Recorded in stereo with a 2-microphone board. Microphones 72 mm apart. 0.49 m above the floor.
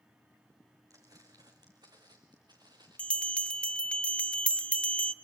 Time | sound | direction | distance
0.9 | footsteps | 55° right (ahead or behind) | 2.5 m
3.0 | a bell | 15° left (ahead or behind) | 1.1 m